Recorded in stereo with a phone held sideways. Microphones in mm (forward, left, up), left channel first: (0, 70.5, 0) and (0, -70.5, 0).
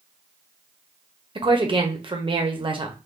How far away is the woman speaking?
About 0.7 m.